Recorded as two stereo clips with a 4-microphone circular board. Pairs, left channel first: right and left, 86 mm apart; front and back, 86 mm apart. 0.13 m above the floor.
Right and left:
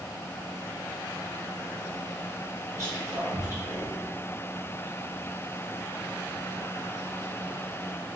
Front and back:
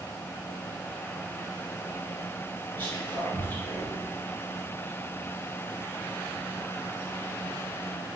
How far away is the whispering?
About 1.5 m.